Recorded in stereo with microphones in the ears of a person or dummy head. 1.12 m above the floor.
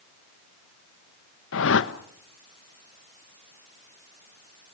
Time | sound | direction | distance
1.5 | a whoosh | 70° left (ahead or behind) | 1.0 m